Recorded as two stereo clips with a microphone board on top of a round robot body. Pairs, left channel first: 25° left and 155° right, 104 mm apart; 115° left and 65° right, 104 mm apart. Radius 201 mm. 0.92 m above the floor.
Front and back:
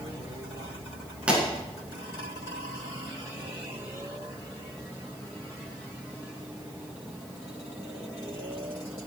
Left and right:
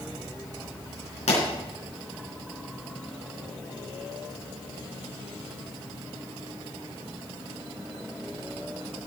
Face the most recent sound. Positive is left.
turn(degrees=125)